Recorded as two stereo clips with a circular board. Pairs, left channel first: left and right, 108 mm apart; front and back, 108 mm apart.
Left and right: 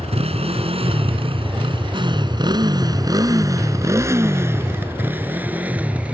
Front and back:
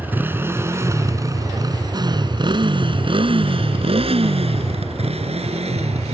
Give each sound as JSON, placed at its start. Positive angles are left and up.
{"t": 0.0, "sound": "a motorcycle", "azimuth_deg": -105}